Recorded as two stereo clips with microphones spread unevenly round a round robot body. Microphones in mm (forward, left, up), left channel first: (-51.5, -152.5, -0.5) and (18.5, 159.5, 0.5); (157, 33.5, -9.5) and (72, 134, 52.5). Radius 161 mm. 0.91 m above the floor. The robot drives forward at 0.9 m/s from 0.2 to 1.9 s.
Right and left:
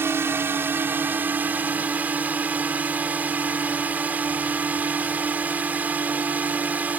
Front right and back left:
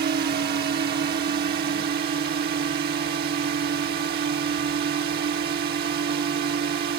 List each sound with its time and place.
0.0 s a drone: 160° left